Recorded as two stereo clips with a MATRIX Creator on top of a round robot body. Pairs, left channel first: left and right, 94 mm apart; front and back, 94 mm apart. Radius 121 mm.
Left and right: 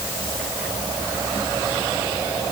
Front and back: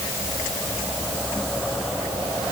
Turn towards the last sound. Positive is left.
No sound to turn to.